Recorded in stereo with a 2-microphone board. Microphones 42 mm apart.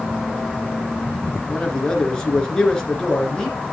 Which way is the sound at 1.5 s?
15° left (ahead or behind).